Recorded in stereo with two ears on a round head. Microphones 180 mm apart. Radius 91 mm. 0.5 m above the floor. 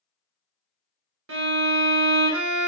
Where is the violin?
70° right (ahead or behind), 0.9 m.